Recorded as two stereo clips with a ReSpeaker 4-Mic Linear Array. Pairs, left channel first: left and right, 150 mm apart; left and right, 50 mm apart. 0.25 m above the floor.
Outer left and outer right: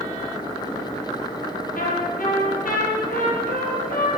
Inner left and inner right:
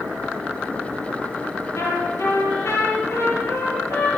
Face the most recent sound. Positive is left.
turn(degrees=70)  # may be behind; listen again after turning